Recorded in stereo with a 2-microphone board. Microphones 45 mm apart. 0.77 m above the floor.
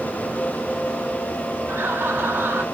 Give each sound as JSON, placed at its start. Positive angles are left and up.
{"t": 1.7, "sound": "laughter", "side_deg": -60, "distance_m": 1.8}